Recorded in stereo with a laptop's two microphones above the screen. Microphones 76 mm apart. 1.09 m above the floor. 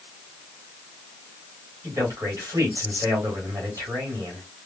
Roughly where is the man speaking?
Right.